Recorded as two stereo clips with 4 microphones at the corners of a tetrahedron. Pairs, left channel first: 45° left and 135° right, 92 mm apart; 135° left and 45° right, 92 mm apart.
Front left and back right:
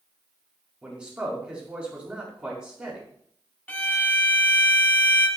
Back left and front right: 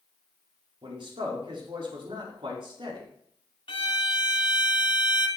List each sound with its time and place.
0.8 s a man speaking: 55° right, 4.5 m
3.7 s a violin: 115° left, 1.5 m